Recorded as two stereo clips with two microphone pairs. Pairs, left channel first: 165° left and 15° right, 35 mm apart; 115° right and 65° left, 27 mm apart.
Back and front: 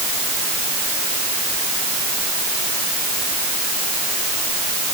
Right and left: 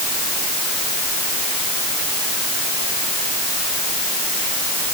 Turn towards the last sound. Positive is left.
No sound to turn to.